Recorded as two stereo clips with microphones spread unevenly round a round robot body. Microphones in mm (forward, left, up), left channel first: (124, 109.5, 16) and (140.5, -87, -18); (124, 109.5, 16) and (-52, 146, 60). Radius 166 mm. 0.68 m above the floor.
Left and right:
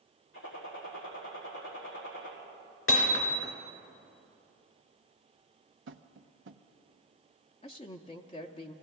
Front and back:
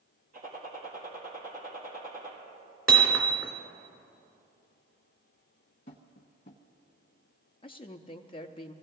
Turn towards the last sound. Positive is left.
turn(degrees=30)